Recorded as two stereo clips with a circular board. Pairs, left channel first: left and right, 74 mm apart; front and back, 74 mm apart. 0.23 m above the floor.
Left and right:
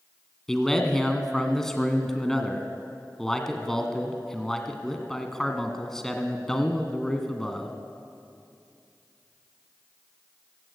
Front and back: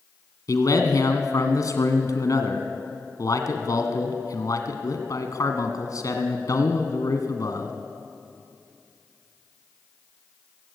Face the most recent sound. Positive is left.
turn(degrees=10)